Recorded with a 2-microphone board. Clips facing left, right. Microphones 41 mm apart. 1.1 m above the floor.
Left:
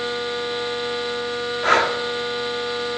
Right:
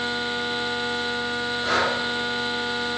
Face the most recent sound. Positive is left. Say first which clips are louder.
# left 6 dB
turn(degrees=55)  # may be behind; listen again after turning